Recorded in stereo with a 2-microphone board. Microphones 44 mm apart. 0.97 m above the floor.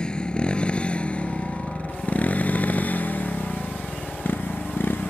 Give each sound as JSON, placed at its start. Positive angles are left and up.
{"t": 0.0, "sound": "a motorcycle", "side_deg": 20}